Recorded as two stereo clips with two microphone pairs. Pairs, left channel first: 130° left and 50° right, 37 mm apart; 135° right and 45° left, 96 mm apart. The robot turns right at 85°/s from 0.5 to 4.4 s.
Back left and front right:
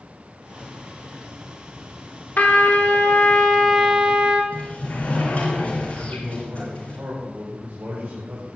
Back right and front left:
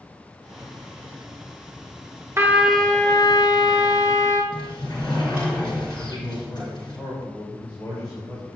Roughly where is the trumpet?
Left.